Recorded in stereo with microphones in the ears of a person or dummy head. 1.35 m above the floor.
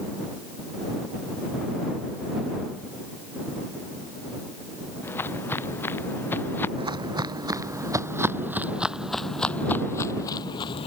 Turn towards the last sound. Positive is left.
turn(degrees=30)  # may be behind; listen again after turning